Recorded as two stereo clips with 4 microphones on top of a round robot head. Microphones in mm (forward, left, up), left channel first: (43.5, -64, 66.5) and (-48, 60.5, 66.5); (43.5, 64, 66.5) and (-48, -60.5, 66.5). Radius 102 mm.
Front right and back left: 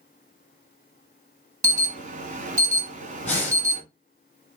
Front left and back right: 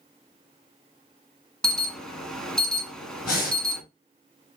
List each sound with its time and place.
1.6 s an alarm: 140° left, 1.4 m
3.2 s breathing: 25° left, 4.5 m